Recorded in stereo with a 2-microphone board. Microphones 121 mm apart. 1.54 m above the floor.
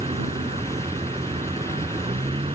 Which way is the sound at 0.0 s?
50° right (ahead or behind).